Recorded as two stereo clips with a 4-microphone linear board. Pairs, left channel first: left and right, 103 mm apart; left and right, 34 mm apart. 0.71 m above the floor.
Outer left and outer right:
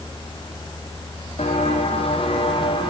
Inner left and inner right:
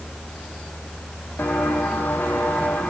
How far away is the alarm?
No alarm in this recording.